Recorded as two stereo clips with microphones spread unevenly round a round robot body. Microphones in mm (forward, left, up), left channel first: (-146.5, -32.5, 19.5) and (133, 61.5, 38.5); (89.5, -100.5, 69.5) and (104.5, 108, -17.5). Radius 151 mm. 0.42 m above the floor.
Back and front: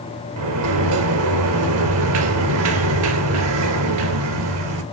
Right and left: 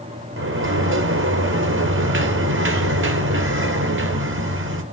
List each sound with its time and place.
0.4 s a sliding door: 55° left, 2 m